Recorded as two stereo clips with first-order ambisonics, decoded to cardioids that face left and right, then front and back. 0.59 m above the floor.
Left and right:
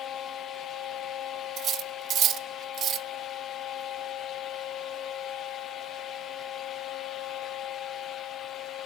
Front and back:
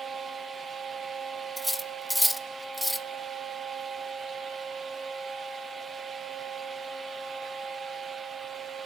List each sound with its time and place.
1.6 s cutlery clinking: 90° right, 0.5 m